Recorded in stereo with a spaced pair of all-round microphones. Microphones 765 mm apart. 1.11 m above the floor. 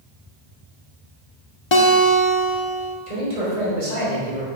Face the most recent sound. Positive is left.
turn(degrees=-55)  # may be behind; listen again after turning